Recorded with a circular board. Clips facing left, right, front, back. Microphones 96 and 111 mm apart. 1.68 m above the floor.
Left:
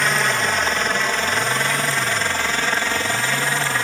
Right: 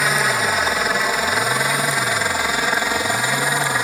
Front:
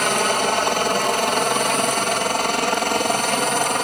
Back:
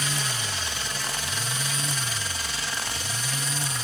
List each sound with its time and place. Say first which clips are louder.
0.0 s a helicopter: right 1 dB, front 13 dB; 5° right; by 3.9 s 15° right